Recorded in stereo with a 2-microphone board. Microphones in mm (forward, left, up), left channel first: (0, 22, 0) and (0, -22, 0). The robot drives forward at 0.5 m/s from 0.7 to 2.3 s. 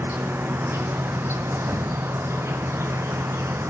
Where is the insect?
60° right (ahead or behind), 1.1 m; by 3.7 s 70° right (ahead or behind), 1.1 m.